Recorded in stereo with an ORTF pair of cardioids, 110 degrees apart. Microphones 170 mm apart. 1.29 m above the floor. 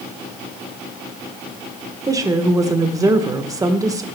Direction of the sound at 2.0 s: 20° right.